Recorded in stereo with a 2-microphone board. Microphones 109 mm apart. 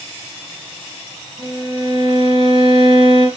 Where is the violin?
45° left (ahead or behind), 1.7 m.